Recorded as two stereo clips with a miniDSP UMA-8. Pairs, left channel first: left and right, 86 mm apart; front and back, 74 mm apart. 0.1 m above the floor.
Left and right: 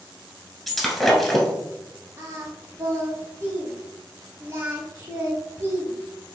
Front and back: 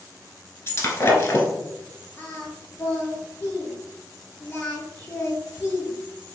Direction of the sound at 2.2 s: 50° right.